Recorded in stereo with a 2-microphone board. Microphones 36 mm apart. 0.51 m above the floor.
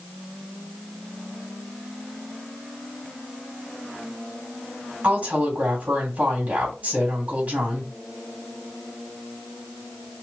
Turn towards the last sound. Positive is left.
turn(degrees=-40)  # may be behind; listen again after turning